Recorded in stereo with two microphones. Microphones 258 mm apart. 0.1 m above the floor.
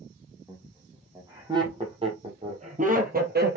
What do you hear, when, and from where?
0.5 s laughter: 10° right (ahead or behind), 3.5 m; by 3.6 s 40° right (ahead or behind), 2.5 m